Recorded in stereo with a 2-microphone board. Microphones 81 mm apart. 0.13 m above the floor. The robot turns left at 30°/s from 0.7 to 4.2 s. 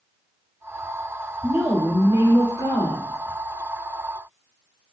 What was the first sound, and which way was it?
A woman speaking, 20° right.